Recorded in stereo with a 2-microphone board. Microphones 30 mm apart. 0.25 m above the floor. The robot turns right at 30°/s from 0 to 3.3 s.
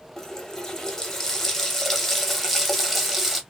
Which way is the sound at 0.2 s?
20° left (ahead or behind).